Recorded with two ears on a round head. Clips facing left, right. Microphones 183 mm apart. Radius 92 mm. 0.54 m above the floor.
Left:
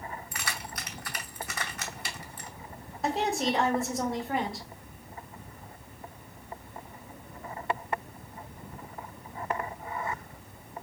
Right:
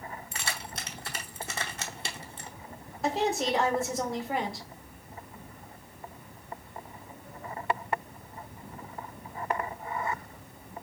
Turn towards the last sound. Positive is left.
turn(degrees=0)  # may be behind; listen again after turning